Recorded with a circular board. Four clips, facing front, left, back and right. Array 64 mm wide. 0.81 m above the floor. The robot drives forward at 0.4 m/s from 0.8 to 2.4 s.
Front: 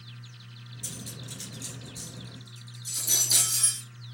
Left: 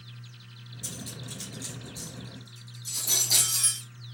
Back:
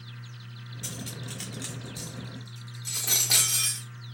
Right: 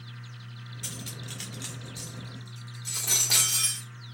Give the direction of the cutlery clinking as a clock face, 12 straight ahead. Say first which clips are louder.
Left 1 dB, back 4 dB; 4 o'clock.